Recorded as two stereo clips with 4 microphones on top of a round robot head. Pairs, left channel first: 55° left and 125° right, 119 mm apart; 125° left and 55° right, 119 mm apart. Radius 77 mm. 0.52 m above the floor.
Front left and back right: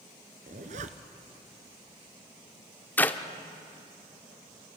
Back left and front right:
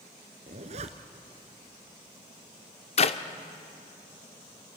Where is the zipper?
90° right, 1.3 m.